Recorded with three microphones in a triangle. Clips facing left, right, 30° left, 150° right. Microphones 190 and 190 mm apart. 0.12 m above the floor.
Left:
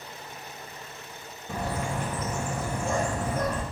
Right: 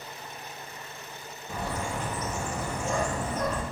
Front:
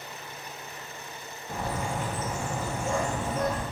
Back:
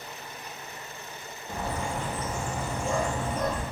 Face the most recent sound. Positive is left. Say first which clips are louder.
# left 2 dB, even
turn(degrees=115)